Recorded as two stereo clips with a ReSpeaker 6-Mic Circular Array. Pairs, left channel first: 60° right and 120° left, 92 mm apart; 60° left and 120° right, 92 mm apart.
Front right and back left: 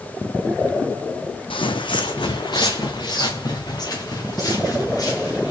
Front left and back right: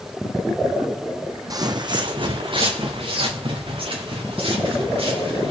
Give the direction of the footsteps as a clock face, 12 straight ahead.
2 o'clock.